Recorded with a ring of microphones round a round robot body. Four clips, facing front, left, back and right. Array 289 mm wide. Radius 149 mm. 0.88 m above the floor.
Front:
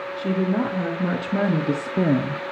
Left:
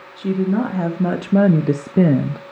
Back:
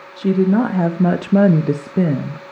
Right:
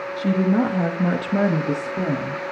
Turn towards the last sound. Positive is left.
turn(degrees=80)